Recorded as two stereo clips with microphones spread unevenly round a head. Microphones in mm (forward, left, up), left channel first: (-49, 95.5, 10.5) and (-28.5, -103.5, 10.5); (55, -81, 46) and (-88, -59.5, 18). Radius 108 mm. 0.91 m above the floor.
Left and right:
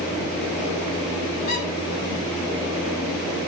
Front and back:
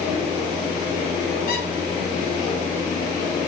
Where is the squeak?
45° left, 5 m.